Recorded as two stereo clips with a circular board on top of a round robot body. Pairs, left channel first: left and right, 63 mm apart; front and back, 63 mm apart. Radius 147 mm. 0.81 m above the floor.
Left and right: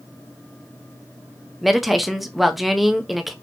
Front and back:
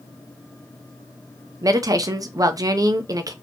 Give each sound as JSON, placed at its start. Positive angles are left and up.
{"t": 1.6, "sound": "a woman speaking", "azimuth_deg": 180, "distance_m": 0.9}